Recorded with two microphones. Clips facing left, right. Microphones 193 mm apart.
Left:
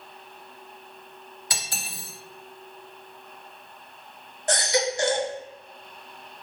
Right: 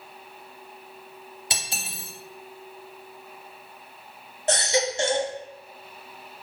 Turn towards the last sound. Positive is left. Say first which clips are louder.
# right 1 dB
turn(degrees=-25)  # may be behind; listen again after turning